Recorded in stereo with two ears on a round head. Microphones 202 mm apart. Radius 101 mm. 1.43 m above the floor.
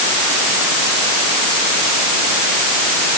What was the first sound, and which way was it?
Only background noise.